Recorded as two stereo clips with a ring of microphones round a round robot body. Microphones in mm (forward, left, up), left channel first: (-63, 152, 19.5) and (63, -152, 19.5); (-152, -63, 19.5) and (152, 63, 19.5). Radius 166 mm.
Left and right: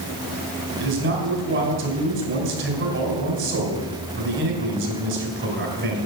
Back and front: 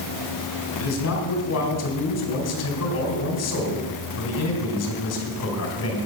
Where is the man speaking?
120° right, 2.5 m.